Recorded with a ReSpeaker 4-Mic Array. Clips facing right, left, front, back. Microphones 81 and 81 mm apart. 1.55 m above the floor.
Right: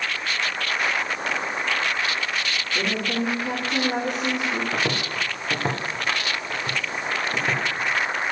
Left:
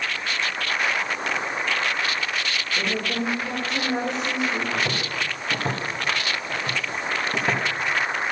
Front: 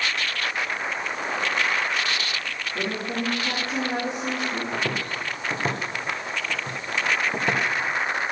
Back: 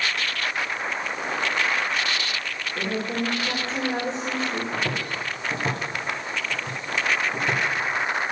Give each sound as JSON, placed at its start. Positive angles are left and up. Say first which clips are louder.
{"t": 2.8, "sound": "a woman speaking", "louder": "right 1 dB, back 1 dB", "azimuth_deg": -65, "distance_m": 4.5}
{"t": 4.7, "sound": "footsteps", "louder": "right 1 dB, even", "azimuth_deg": -60, "distance_m": 3.0}